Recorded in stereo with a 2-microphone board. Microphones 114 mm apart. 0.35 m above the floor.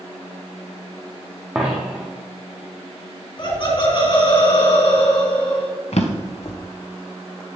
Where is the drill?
No drill in this recording.